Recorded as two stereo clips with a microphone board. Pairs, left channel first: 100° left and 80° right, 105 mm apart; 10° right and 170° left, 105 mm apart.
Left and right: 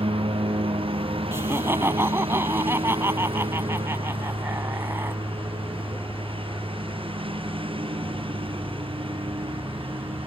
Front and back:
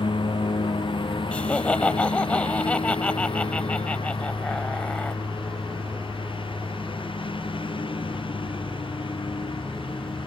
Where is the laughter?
75° right.